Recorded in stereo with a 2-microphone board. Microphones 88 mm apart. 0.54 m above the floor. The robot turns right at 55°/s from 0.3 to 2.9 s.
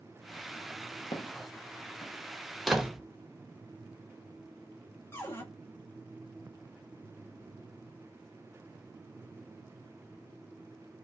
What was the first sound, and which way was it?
Footsteps, 55° left (ahead or behind).